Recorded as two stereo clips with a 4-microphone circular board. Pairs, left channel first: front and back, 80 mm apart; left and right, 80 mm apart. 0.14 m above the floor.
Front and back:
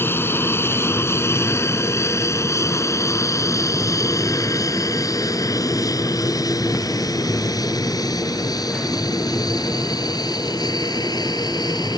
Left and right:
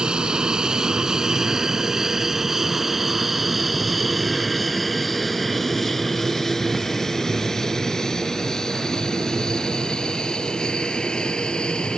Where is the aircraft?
20° right; by 12.0 s 10° left.